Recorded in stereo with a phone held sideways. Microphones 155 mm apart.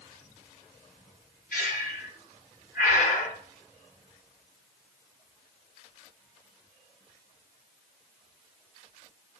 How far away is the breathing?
About 1.6 m.